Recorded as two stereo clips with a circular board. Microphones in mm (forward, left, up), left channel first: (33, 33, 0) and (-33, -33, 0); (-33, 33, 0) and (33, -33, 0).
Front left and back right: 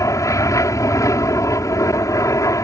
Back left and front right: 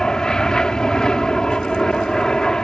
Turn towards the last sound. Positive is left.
turn(degrees=60)